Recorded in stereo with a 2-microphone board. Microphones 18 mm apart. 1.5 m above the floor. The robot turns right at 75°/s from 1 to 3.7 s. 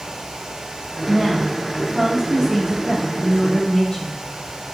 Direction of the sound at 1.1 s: 150° right.